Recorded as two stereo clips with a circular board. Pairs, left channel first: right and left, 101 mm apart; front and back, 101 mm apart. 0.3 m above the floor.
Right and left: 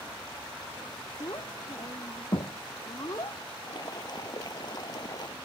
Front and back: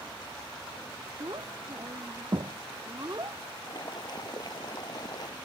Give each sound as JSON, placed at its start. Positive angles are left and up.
{"t": 1.2, "sound": "a child speaking", "azimuth_deg": -135}
{"t": 3.6, "sound": "boiling", "azimuth_deg": -45}